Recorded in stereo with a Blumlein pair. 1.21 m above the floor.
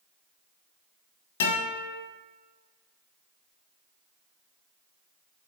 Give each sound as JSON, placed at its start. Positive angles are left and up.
{"t": 1.4, "sound": "a guitar", "azimuth_deg": 55, "distance_m": 4.5}